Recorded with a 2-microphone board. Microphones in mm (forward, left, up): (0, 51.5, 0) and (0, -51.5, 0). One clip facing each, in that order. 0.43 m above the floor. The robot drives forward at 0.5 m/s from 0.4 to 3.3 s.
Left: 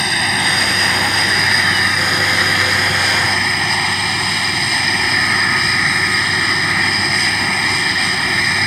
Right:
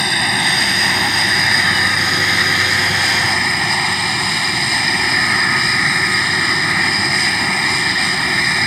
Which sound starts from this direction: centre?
An aircraft, at 0.0 s.